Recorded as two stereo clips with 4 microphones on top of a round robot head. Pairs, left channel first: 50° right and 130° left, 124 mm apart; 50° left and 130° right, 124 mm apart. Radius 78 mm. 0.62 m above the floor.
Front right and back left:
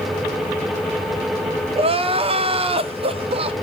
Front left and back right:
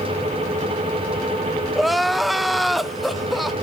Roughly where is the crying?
Behind left.